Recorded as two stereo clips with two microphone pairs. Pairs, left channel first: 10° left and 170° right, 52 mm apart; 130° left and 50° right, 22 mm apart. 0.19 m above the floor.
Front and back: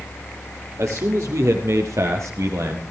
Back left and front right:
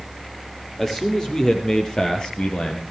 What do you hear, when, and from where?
0.8 s a man speaking: 165° right, 6 m; by 2.8 s 175° left, 4.5 m